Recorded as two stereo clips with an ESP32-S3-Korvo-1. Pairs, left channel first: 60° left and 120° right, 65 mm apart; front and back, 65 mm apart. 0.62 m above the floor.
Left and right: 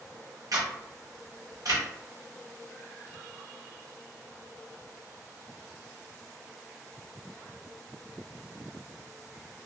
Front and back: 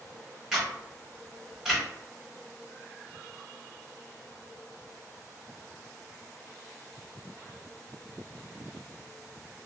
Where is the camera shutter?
100° right, 1.6 m.